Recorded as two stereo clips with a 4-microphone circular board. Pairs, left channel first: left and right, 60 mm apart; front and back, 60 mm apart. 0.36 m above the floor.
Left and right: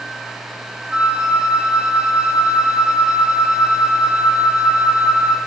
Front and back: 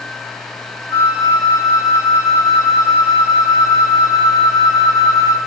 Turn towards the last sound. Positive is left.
turn(degrees=-15)